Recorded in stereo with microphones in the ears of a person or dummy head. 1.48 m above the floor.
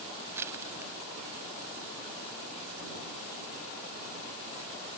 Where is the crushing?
15° right (ahead or behind).